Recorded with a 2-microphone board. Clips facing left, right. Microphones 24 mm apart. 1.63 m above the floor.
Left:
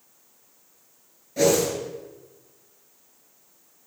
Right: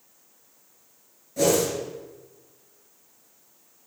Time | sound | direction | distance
1.4 | a whoosh | 20° left (ahead or behind) | 4 m